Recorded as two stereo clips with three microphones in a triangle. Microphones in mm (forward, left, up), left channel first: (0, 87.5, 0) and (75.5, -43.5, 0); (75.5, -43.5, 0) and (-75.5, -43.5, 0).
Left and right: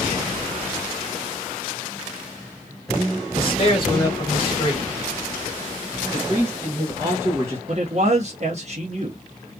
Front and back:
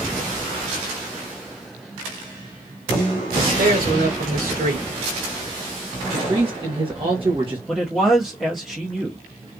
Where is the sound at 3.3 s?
170° left, 1.9 m.